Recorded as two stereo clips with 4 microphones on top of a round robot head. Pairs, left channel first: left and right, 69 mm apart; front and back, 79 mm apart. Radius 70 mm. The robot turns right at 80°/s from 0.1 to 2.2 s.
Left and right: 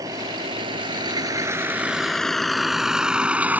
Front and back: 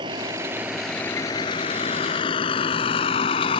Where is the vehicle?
140° right; by 3.6 s 25° right.